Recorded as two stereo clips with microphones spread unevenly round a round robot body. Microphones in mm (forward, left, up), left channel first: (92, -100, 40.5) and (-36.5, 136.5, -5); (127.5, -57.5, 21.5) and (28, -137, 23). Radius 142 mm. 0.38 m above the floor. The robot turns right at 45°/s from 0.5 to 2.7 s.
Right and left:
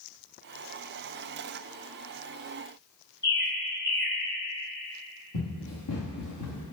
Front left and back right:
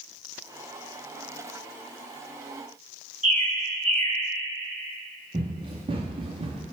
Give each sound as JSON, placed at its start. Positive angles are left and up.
{"t": 3.2, "sound": "a bird", "azimuth_deg": -120, "distance_m": 2.5}
{"t": 5.3, "sound": "running footsteps", "azimuth_deg": -90, "distance_m": 3.0}